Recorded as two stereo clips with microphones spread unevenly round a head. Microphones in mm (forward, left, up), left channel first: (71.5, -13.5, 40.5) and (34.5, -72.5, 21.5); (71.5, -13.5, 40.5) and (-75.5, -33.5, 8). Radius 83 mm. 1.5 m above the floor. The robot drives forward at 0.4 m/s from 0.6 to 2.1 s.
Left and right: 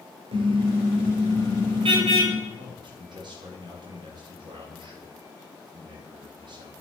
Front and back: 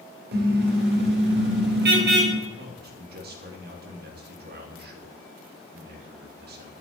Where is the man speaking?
155° right, 3.5 m.